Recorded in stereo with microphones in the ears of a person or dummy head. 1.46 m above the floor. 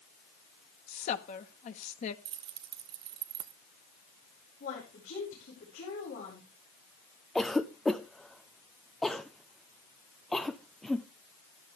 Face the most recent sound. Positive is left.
turn(degrees=5)  # may be behind; listen again after turning